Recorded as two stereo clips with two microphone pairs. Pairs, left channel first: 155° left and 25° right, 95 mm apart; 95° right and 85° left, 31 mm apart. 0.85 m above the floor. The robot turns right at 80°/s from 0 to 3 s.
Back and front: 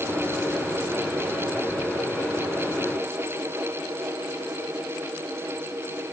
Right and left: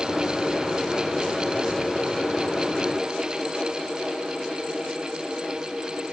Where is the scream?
I don't hear a scream.